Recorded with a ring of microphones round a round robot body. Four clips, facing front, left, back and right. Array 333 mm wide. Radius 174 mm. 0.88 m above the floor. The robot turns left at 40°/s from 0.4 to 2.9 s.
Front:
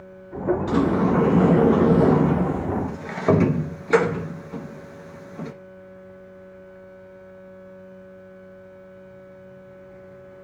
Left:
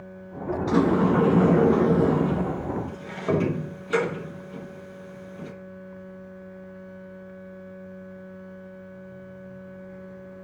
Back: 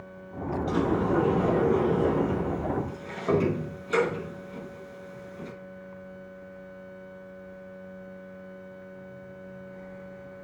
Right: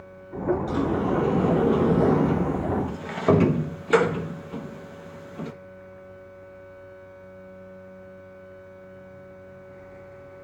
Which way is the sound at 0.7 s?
55° left.